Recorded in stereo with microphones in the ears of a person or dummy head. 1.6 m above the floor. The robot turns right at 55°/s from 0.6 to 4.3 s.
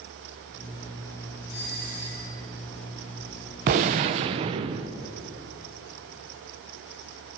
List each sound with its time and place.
1.5 s a doorbell: 115° left, 3.5 m; by 2.5 s 165° left, 3.5 m
3.7 s a gunshot: 100° right, 0.7 m; by 4.9 s 65° right, 0.7 m